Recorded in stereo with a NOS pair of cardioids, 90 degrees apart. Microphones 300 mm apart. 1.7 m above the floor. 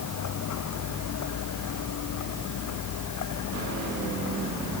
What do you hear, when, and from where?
0.0 s a vehicle: 65° left; by 4.8 s 70° left